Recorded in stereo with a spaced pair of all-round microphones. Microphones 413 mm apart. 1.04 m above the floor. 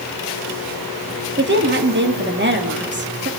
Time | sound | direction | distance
1.4 | a woman speaking | 25° right (ahead or behind) | 2.5 m